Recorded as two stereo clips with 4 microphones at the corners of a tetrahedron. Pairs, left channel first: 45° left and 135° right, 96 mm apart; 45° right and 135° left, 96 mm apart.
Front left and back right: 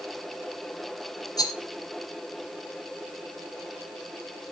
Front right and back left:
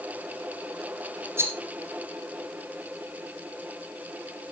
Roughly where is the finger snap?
I don't hear a finger snap.